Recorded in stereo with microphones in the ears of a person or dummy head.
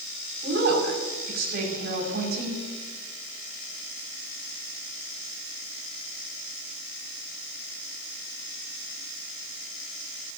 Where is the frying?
No frying in this recording.